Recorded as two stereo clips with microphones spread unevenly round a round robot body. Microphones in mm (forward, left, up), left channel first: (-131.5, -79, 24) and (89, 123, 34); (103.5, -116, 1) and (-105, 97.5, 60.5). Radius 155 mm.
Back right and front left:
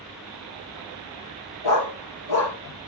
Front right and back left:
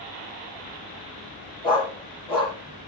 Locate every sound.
1.6 s a dog barking: 120° right, 7.5 m